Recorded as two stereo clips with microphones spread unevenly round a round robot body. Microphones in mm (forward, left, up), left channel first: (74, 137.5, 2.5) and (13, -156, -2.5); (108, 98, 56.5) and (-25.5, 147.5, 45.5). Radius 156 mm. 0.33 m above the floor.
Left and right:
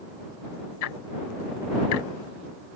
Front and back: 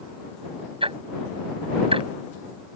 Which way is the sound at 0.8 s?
115° left.